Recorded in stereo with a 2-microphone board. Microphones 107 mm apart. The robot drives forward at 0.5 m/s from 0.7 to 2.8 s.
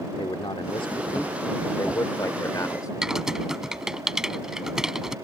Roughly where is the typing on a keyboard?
Centre.